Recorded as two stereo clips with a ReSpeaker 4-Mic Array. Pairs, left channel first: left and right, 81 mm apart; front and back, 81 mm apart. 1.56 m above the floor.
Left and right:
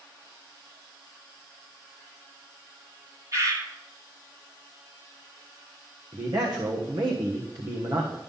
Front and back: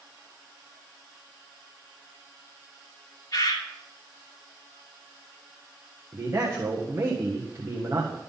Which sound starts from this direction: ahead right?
A bird, at 3.3 s.